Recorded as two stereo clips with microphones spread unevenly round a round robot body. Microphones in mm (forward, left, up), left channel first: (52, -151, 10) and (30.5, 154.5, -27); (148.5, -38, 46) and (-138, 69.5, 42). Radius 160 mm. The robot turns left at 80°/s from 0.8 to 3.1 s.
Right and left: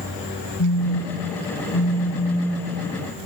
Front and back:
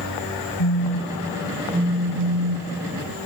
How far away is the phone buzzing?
About 2.5 m.